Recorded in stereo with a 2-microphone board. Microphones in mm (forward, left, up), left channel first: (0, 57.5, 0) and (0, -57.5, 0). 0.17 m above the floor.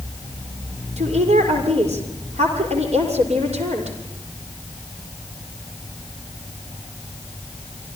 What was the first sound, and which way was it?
A woman speaking, 70° right (ahead or behind).